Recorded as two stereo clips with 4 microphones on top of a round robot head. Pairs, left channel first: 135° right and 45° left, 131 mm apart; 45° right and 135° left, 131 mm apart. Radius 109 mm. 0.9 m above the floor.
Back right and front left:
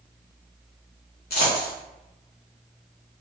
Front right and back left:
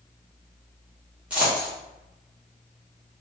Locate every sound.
1.3 s a dropped coin: 145° right, 0.8 m